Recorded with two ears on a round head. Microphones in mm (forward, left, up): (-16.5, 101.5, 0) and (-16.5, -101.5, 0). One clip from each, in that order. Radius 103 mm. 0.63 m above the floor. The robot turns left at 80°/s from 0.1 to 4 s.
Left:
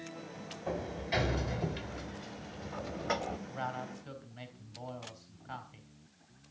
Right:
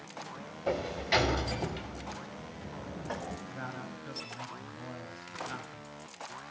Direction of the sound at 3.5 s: 40° left.